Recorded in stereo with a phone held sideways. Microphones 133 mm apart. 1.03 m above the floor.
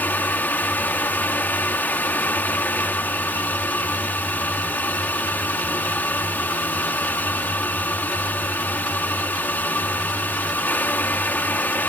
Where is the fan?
15° left (ahead or behind).